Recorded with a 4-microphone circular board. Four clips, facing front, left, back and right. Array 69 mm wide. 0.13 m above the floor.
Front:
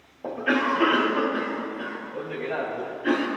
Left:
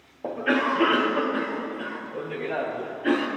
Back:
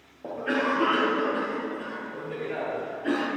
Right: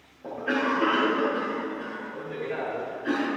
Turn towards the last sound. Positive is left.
turn(degrees=70)